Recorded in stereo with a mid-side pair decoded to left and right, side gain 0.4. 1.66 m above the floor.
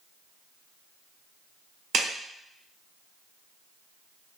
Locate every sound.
1.9 s a clap: 70° right, 1.1 m